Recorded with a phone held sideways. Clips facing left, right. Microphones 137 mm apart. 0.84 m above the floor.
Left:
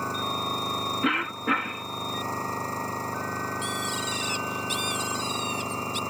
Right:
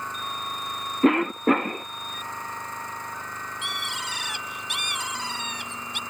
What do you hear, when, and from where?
0.0 s an engine running: 35° left (ahead or behind)
1.0 s a cough: 40° right (ahead or behind)
3.6 s a bird: 65° right (ahead or behind)